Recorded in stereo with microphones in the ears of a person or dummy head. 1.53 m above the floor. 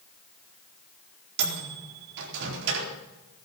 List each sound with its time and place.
1.4 s a microwave: 65° right (ahead or behind), 4 m